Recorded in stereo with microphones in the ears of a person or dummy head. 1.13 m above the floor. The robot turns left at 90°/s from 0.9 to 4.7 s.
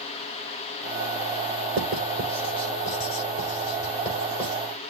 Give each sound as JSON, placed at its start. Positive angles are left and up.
{"t": 1.8, "sound": "writing", "side_deg": -45, "distance_m": 5.0}